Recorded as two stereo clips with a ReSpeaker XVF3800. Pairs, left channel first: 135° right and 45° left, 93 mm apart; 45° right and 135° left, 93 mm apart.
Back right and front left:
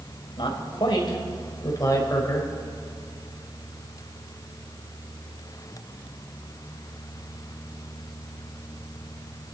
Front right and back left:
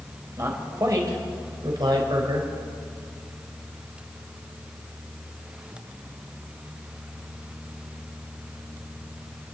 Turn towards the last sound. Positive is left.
turn(degrees=165)